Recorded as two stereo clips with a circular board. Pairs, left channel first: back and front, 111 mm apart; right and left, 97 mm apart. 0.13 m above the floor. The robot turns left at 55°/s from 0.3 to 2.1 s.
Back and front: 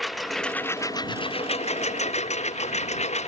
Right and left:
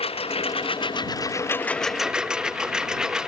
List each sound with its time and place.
0.0 s a lawn mower: 90° right; by 3.3 s 175° left